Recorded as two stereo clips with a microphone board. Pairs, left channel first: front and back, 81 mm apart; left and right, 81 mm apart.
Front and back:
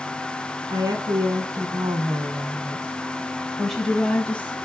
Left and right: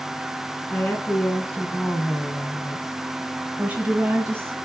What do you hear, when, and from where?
0.7 s a woman speaking: 155° left, 2 m; by 4.5 s 55° right, 1.4 m